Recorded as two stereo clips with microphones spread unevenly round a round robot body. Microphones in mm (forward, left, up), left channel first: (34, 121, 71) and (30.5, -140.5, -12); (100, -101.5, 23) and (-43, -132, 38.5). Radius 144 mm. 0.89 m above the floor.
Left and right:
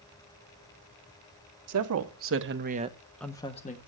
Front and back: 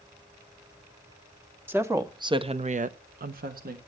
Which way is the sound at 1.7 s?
90° right.